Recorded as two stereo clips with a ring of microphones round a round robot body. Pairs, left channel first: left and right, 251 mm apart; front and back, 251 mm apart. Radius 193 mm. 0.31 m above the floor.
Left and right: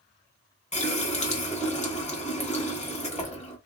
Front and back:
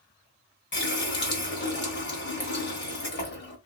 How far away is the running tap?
About 1.3 m.